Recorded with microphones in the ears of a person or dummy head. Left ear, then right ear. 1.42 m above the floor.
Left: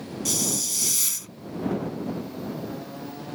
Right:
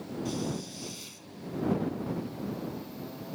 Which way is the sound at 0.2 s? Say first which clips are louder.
Left 12 dB; 55° left (ahead or behind).